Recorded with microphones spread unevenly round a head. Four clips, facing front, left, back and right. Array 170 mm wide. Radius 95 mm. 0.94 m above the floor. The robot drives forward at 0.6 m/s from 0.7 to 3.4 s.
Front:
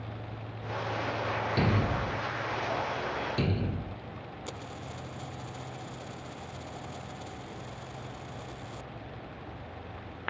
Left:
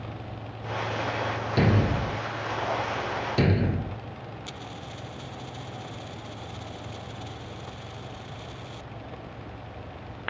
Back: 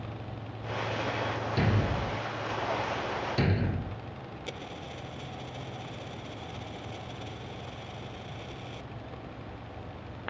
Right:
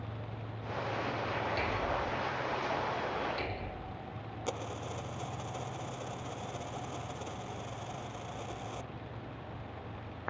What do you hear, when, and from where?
1.6 s a thud: 85° left; by 4.0 s 95° left
4.5 s a dropped coin: 100° right